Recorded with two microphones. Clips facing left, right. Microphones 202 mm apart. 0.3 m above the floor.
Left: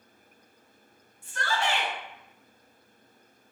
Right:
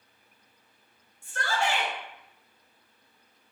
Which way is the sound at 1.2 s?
50° right (ahead or behind).